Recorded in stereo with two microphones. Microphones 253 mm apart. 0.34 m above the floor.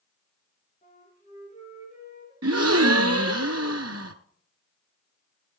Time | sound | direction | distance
0.8 | a flute | 30° left (ahead or behind) | 6 m
2.4 | a gasp | 80° right | 1.0 m